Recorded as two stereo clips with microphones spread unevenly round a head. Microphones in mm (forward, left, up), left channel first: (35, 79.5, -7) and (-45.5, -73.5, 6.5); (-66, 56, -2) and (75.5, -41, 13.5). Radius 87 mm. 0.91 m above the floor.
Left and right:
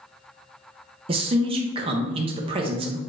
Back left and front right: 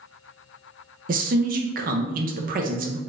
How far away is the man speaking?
About 0.6 m.